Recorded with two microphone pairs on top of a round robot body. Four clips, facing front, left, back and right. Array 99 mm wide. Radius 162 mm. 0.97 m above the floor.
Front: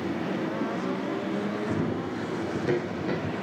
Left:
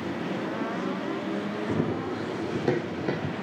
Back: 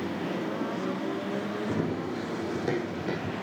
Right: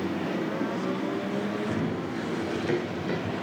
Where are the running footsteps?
130° left, 1.7 m; by 3.3 s 105° left, 4 m.